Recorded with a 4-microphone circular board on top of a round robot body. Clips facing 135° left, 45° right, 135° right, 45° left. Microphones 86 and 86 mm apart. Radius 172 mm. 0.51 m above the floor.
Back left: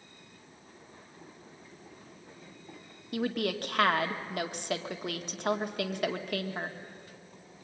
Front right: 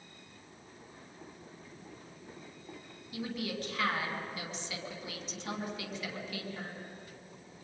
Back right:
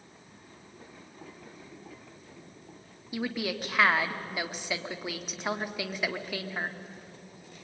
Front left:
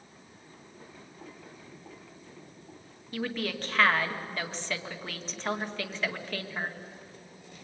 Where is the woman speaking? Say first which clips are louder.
Back left 7 dB, back right 1 dB; 145° left, 1.9 m.